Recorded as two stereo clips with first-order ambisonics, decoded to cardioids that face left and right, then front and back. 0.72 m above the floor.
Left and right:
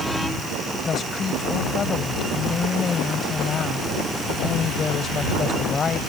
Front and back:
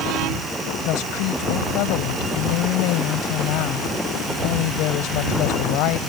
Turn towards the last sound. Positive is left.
turn(degrees=20)